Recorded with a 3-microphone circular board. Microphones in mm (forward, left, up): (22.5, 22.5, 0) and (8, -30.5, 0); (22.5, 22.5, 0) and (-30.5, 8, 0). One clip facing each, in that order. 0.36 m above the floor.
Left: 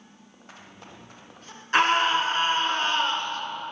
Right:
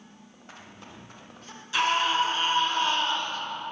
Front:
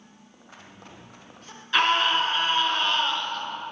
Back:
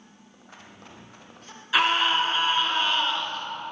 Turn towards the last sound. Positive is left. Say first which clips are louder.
# left 3 dB, even
turn(degrees=110)